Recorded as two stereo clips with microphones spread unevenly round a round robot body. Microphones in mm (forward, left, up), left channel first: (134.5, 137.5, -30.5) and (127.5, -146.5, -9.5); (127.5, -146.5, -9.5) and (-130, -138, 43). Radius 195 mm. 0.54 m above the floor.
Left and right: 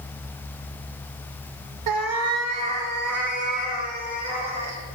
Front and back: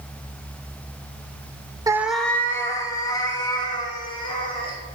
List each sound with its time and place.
1.9 s a cat meowing: 100° right, 0.6 m; by 4.8 s 75° right, 3.5 m